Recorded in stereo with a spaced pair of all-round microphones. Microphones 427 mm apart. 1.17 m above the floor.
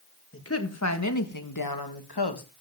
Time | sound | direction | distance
0.3 | a woman speaking | 30° left (ahead or behind) | 1.9 m